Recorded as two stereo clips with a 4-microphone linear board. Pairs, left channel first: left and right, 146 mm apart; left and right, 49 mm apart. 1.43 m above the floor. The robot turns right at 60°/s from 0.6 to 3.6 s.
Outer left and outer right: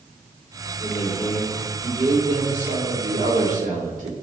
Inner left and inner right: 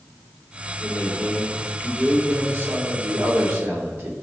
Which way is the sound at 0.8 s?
130° left.